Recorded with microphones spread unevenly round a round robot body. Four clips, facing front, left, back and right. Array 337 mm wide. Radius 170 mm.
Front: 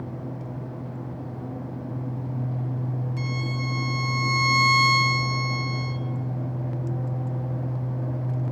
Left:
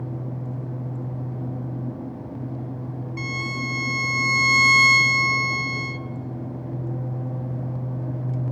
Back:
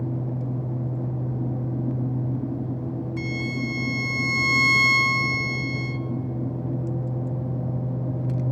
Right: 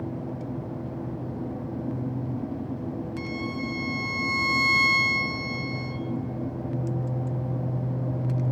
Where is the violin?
145° left, 0.7 m.